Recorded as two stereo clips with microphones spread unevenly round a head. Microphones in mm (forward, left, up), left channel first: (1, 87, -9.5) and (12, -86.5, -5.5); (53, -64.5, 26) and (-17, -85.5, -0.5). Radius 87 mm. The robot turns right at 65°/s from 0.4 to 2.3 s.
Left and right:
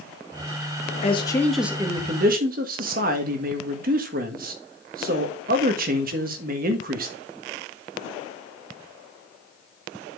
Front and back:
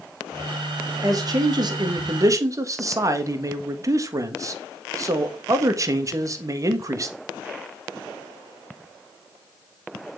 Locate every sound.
1.0 s a man speaking: 150° left, 1.5 m; by 7.2 s 130° right, 1.5 m